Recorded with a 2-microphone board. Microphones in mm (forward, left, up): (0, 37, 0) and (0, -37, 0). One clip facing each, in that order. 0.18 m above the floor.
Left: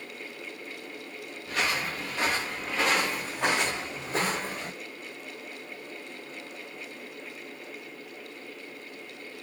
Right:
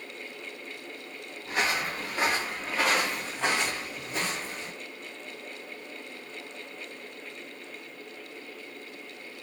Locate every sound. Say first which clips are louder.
1.5 s footsteps: right 1 dB; 25° right (ahead or behind), 1.6 m; by 4.7 s 55° left (ahead or behind), 0.9 m